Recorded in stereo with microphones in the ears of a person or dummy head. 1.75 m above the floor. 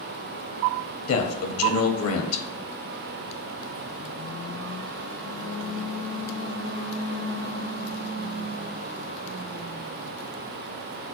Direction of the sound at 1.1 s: 80° left.